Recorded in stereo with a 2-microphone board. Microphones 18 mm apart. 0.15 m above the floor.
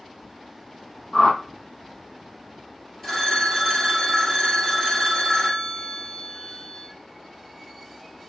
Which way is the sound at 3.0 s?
10° left (ahead or behind).